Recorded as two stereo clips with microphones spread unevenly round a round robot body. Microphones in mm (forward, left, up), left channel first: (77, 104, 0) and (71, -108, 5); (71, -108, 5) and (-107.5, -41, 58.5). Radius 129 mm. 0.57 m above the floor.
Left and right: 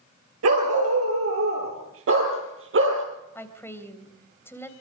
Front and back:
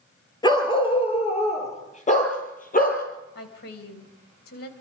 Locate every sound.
0.4 s a dog barking: 90° right, 4.5 m; by 3.0 s 65° right, 6 m
3.4 s a woman speaking: 10° left, 3 m